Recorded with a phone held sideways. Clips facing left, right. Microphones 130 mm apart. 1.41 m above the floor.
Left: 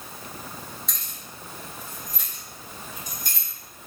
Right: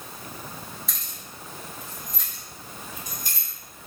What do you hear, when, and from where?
0.9 s keys jangling: 5° right (ahead or behind), 1.2 m; by 3.5 s 10° left (ahead or behind), 2.5 m